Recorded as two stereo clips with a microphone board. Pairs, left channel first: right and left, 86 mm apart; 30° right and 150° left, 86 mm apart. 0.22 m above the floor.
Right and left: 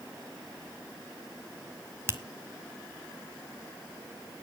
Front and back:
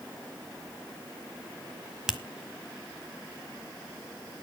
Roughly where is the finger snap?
Left.